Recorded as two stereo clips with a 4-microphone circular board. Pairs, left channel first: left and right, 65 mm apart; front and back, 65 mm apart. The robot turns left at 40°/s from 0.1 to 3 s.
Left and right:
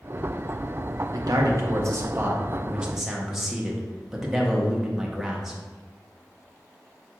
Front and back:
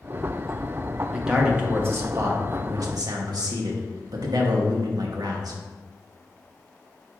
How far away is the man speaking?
About 0.9 m.